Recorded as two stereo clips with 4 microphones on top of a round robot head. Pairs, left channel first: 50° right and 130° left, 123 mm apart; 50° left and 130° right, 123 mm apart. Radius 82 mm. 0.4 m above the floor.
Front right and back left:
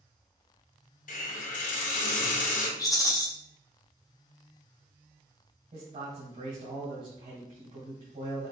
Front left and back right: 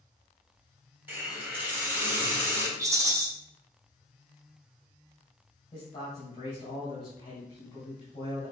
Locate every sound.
1.1 s a hiss: 55° right, 1.3 m
2.8 s a rattle: 85° right, 1.4 m
5.7 s a man speaking: 100° left, 2 m